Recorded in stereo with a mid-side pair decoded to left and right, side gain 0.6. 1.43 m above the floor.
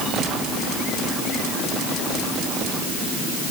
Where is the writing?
I don't hear writing.